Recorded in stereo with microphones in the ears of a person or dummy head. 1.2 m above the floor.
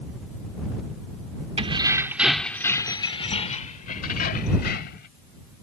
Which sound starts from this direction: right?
Keys jangling, at 1.6 s.